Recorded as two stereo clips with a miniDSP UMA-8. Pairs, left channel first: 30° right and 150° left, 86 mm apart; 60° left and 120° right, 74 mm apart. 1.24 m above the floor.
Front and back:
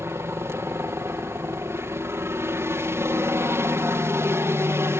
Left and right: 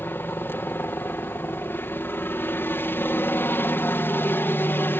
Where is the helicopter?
105° left.